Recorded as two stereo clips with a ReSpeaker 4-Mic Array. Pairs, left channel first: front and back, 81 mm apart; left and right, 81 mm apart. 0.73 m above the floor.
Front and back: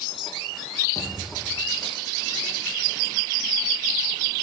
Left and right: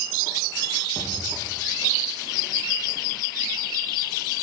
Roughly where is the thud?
Ahead left.